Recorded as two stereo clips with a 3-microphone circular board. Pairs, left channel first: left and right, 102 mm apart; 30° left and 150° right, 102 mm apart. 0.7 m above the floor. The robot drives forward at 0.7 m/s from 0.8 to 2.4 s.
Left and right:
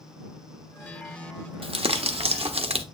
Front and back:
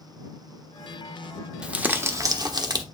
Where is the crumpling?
70° right, 1.0 m; by 2.8 s 100° right, 1.0 m.